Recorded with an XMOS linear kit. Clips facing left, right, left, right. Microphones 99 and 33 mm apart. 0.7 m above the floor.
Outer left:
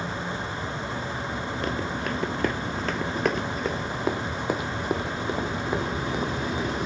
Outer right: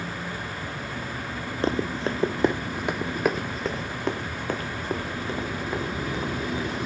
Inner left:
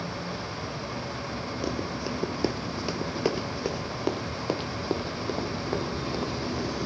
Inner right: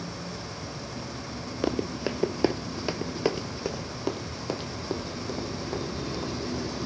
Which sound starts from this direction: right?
Running footsteps, at 1.6 s.